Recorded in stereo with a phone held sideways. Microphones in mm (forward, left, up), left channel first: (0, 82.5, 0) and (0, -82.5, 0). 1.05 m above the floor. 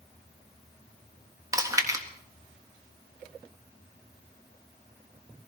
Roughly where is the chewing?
Centre.